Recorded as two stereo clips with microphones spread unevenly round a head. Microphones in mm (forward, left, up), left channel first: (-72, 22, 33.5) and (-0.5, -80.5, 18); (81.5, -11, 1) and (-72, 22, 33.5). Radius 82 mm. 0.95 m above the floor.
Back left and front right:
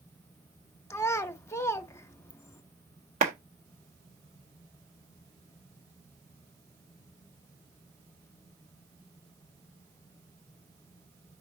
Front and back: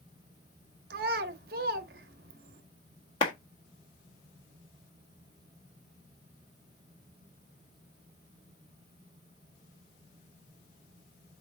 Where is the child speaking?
170° right, 0.8 m.